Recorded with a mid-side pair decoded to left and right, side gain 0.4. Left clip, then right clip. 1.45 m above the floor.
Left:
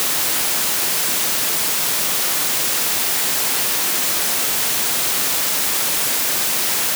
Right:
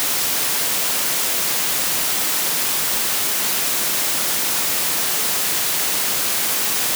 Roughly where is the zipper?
No zipper in this recording.